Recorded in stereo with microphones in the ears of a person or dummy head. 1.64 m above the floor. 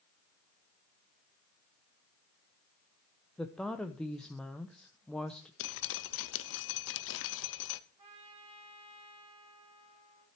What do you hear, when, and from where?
3.4 s a woman speaking: 5° left (ahead or behind), 0.8 m
5.6 s dripping: 70° left (ahead or behind), 0.7 m
8.0 s a trumpet: 35° right (ahead or behind), 4.5 m